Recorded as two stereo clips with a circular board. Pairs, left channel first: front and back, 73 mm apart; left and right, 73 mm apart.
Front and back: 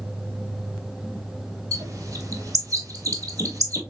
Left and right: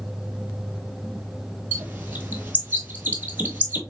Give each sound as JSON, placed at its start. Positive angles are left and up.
{"t": 1.7, "sound": "a bird", "azimuth_deg": -155, "distance_m": 1.0}